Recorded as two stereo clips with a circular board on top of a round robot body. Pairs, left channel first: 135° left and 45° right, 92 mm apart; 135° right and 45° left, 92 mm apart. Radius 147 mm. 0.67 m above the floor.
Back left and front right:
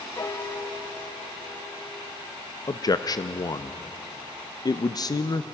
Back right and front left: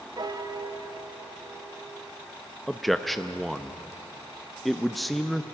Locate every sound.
0.2 s a piano: 85° left, 1.3 m
2.7 s a man speaking: 135° left, 0.9 m